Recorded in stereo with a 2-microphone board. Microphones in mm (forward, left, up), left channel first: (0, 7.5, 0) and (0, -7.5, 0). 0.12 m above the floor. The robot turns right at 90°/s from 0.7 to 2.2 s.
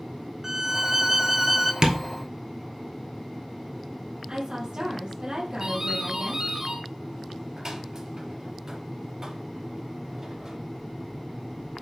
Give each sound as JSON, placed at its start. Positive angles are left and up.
{"t": 0.4, "sound": "a violin", "side_deg": -25, "distance_m": 0.6}
{"t": 1.8, "sound": "tapping", "side_deg": -45, "distance_m": 1.1}
{"t": 4.3, "sound": "a woman speaking", "side_deg": -60, "distance_m": 3.5}
{"t": 5.6, "sound": "a doorbell", "side_deg": -40, "distance_m": 3.0}